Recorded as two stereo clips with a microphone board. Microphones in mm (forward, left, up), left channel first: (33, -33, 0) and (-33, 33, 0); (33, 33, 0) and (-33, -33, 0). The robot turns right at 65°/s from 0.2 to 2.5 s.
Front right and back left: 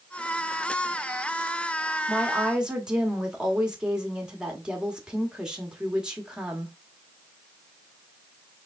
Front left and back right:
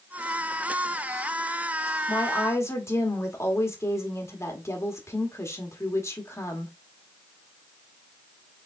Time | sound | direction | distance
2.1 | a woman speaking | 35° left | 1.1 m